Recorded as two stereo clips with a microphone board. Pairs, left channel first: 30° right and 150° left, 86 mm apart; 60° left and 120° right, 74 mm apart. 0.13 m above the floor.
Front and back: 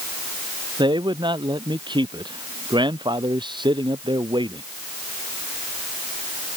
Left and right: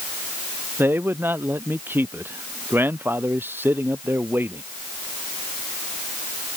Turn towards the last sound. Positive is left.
turn(degrees=180)